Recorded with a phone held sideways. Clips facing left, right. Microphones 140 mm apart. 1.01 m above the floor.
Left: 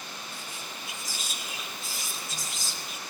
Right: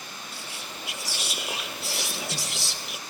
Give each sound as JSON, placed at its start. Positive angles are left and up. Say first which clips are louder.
{"t": 0.3, "sound": "whispering", "louder": "right 1 dB", "side_deg": -75, "distance_m": 1.6}